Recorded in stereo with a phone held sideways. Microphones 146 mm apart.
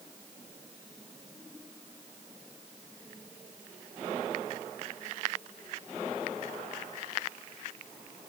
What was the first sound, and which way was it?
Only background noise.